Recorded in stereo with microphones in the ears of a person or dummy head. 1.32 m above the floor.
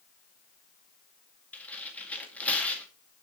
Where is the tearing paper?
5° left (ahead or behind), 2 m.